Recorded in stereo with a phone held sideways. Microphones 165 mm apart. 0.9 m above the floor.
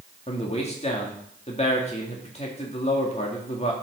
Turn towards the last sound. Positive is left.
turn(degrees=40)  # may be behind; listen again after turning